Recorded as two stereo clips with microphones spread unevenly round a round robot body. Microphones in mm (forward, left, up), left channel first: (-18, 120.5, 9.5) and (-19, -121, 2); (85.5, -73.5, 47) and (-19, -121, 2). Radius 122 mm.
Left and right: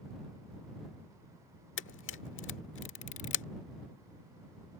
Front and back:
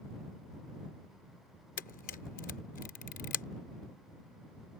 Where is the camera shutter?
45° left.